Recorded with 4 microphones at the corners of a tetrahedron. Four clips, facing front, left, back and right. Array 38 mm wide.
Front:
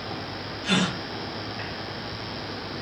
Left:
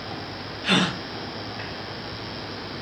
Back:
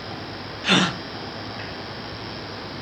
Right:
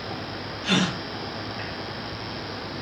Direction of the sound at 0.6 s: 155° left.